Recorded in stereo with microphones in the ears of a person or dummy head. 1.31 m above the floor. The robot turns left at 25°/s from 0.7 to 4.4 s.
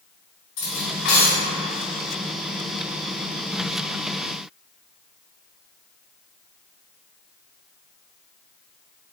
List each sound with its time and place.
0.6 s cutlery clinking: 60° left (ahead or behind), 1.0 m; by 1.5 s 50° left (ahead or behind), 1.0 m